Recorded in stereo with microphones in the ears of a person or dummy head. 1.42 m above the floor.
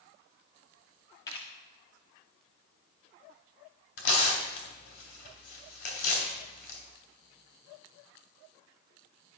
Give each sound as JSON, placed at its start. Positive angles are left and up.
{"t": 1.3, "sound": "a camera shutter", "side_deg": 20, "distance_m": 1.1}
{"t": 4.0, "sound": "tearing paper", "side_deg": 60, "distance_m": 2.5}